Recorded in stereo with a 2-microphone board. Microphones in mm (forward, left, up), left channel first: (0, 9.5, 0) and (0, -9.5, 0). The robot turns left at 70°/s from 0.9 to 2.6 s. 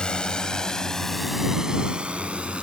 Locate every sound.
0.0 s a drone: 50° left (ahead or behind); by 2.6 s 65° right (ahead or behind)